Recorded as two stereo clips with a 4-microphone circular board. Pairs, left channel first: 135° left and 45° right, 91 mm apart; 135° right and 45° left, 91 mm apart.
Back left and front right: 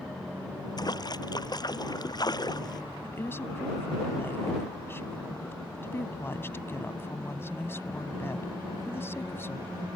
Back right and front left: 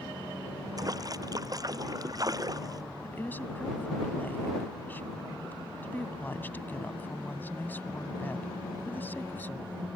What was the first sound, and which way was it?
A splash, 90° left.